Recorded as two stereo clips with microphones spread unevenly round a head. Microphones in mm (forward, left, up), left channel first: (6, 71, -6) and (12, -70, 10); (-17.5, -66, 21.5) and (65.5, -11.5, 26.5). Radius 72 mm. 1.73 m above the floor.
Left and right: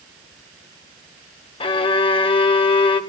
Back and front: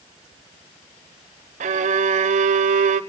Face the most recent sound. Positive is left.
turn(degrees=35)